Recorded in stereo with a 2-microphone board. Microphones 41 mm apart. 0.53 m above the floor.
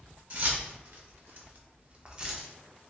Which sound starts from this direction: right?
Keys jangling, at 0.3 s.